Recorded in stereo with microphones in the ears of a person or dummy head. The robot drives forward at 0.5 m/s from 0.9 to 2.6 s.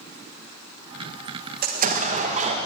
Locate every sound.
1.6 s an explosion: 50° right (ahead or behind), 1.2 m; by 2.6 s 40° right (ahead or behind), 1.5 m